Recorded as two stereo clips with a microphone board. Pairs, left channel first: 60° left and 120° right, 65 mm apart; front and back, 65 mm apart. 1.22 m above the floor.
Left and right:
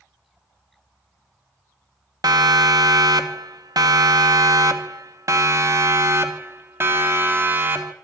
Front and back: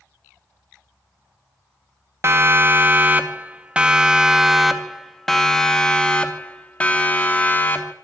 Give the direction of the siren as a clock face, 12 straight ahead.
4 o'clock.